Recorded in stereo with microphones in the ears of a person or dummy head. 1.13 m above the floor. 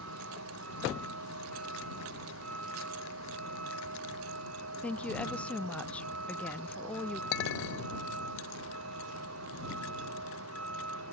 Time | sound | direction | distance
0.0 | a vehicle | 90° right | ?
4.8 | a woman speaking | 5° left (ahead or behind) | ?
7.3 | a clink | 75° left (ahead or behind) | ?